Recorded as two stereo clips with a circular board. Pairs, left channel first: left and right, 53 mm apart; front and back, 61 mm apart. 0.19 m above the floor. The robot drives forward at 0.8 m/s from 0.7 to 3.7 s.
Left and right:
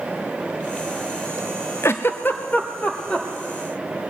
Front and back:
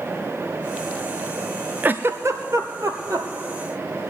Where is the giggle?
120° left, 0.6 m; by 3.3 s 160° left, 1.5 m.